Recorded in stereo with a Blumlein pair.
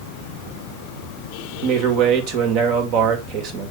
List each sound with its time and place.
1.6 s a man speaking: 40° right, 2.0 m